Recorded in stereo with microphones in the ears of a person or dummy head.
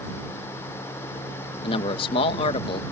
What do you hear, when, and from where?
1.6 s a man speaking: 30° left (ahead or behind)